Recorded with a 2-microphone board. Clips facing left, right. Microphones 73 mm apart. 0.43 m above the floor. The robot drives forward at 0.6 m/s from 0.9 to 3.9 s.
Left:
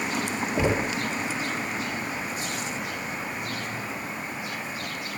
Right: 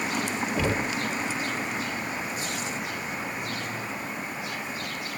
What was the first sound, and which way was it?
Knocking, 20° left (ahead or behind).